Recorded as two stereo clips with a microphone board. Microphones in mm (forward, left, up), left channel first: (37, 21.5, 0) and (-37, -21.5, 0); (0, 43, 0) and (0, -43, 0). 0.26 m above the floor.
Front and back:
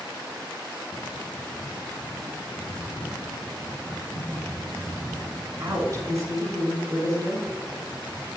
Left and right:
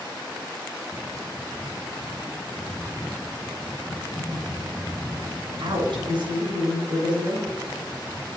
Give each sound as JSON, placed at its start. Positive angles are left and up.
{"t": 3.9, "sound": "typing on a keyboard", "azimuth_deg": 175, "distance_m": 3.0}
{"t": 5.6, "sound": "a woman speaking", "azimuth_deg": -100, "distance_m": 4.0}